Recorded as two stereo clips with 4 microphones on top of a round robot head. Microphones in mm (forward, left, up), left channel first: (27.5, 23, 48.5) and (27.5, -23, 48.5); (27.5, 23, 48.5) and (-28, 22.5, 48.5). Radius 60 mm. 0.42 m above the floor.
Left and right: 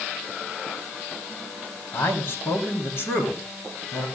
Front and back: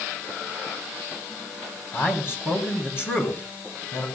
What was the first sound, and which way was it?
A man speaking, 50° left.